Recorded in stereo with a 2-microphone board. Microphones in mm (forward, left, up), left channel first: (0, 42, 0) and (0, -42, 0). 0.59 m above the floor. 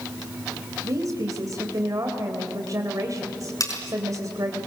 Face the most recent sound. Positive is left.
turn(degrees=45)  # may be behind; listen again after turning